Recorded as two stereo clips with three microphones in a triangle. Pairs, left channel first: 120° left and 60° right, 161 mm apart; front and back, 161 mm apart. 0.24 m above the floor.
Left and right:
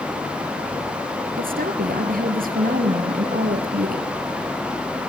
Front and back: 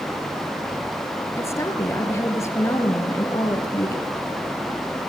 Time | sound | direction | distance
1.4 | a woman speaking | 70° right | 4 m